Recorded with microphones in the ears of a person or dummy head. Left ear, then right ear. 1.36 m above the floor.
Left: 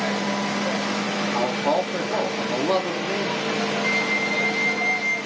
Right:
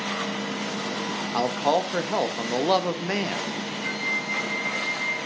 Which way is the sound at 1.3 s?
25° right (ahead or behind).